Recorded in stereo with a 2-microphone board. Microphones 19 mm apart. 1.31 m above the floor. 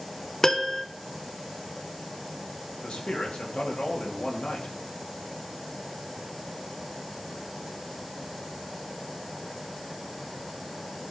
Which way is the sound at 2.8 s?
75° left (ahead or behind).